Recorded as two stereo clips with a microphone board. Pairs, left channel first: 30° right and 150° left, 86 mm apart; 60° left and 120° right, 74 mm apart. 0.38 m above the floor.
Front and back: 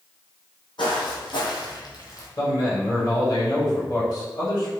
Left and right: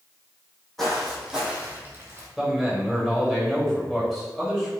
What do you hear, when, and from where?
0.8 s footsteps: 25° right, 1.0 m; by 2.3 s 75° right, 0.8 m
2.4 s a man speaking: 30° right, 1.3 m